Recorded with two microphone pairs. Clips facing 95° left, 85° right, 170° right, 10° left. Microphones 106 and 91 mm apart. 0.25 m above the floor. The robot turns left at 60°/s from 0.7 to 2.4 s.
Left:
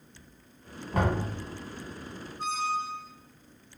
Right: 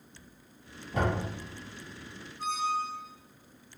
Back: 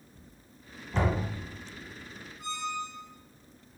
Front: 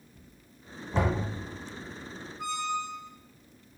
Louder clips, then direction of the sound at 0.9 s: Left 2 dB, front 1 dB; 85° left.